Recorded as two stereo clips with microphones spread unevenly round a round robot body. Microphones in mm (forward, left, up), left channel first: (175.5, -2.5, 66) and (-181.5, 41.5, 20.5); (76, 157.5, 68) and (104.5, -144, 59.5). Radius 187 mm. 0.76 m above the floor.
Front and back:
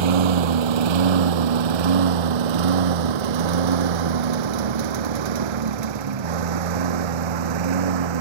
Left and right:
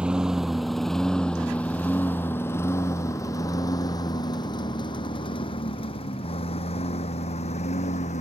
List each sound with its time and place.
0.0 s a lawn mower: 170° right; by 8.2 s 170° left